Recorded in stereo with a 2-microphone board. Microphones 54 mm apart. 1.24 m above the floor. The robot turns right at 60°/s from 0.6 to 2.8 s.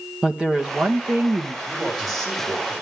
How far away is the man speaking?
About 6 m.